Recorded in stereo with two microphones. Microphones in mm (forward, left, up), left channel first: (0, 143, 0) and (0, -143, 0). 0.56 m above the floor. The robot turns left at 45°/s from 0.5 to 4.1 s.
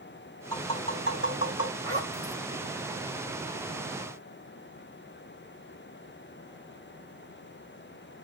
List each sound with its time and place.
0.5 s tapping: 10° left (ahead or behind), 3 m; by 1.7 s 65° left (ahead or behind), 3 m
1.8 s a zipper: 50° left (ahead or behind), 2.5 m; by 2.4 s 65° left (ahead or behind), 2.5 m